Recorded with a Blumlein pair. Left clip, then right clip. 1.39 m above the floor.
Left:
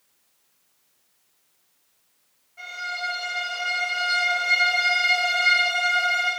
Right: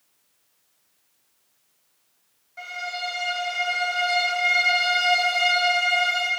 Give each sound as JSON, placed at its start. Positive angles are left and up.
{"t": 2.6, "sound": "a violin", "azimuth_deg": -65, "distance_m": 1.8}